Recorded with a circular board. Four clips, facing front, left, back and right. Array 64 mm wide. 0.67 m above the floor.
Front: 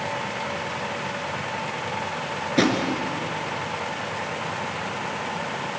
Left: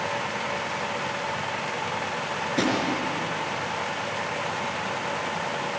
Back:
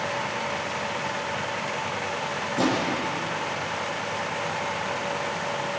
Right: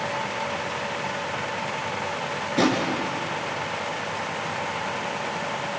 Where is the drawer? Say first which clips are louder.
Right 4 dB, front 3 dB; 5° right, 4 m.